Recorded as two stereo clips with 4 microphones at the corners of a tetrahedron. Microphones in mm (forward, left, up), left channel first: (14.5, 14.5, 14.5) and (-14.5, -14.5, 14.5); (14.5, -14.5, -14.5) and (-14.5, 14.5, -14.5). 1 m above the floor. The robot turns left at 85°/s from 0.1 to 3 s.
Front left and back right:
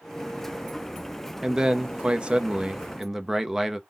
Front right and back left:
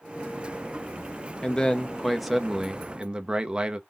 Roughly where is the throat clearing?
No throat clearing in this recording.